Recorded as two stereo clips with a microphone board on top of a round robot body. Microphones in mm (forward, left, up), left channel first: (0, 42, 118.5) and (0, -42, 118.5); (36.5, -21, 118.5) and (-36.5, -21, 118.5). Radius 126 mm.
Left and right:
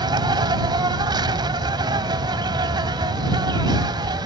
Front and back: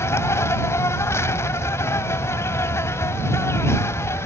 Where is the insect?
55° right.